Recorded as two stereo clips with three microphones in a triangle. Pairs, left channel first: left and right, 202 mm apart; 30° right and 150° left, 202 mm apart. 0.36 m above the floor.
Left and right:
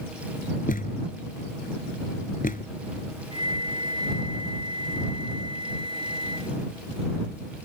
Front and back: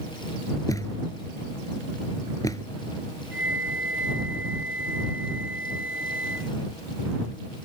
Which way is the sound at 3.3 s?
150° left.